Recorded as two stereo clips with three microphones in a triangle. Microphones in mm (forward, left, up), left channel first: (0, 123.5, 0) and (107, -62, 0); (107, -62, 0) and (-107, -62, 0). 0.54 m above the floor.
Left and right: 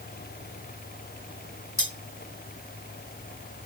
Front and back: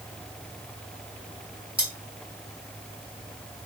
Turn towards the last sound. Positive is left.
turn(degrees=120)